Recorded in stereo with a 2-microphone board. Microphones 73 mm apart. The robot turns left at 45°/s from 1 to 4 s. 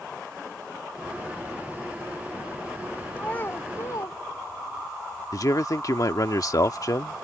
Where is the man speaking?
50° left (ahead or behind).